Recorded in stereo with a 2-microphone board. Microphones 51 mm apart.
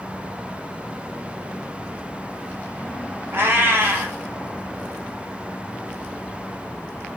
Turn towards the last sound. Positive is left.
turn(degrees=-40)  # may be behind; listen again after turning